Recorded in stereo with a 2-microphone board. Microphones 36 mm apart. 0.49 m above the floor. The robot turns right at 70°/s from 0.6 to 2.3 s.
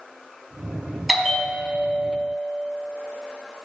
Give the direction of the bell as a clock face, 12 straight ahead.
12 o'clock.